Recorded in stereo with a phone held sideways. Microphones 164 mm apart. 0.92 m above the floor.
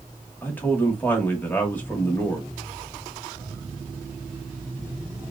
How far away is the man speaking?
About 1.3 m.